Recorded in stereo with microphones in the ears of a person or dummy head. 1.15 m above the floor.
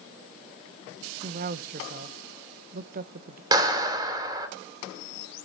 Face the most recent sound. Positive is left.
turn(degrees=-20)  # may be behind; listen again after turning